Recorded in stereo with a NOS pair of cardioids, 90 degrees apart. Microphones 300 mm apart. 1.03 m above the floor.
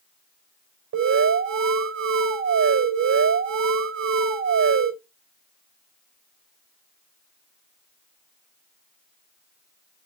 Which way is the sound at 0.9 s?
60° right.